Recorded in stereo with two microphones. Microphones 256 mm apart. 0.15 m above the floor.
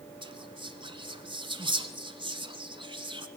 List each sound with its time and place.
0.2 s whispering: 20° right (ahead or behind), 1.2 m